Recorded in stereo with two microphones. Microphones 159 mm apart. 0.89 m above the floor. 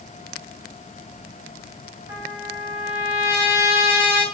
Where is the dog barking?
I don't hear a dog barking.